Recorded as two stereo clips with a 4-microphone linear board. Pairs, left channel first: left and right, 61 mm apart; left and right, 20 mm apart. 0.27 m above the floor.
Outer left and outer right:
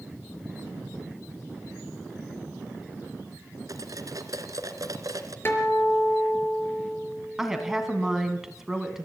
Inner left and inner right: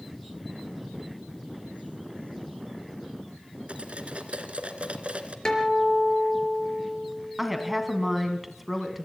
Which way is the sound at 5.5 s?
40° left (ahead or behind).